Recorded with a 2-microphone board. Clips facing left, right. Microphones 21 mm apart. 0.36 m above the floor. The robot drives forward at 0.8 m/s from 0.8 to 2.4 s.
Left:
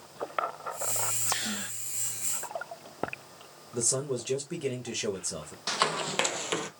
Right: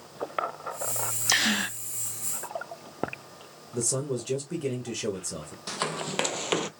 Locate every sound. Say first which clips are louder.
1.3 s a gasp: right 8 dB; 70° right (ahead or behind), 0.7 m; by 1.8 s 80° right, 0.7 m
3.7 s a man speaking: right 1 dB; 10° left (ahead or behind), 1.2 m
5.7 s running footsteps: left 3 dB; 20° left (ahead or behind), 0.9 m; by 6.7 s 30° right (ahead or behind), 0.6 m